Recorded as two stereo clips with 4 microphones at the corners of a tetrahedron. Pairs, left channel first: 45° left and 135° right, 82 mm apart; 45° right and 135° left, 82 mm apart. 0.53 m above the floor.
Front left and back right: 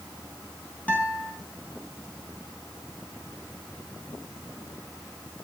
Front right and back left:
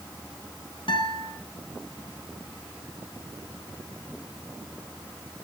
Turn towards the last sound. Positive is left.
turn(degrees=-25)